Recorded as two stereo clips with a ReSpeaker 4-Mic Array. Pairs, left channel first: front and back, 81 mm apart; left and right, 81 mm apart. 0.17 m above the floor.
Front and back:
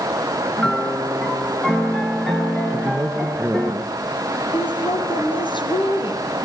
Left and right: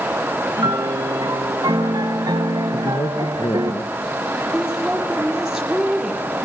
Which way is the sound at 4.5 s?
5° right.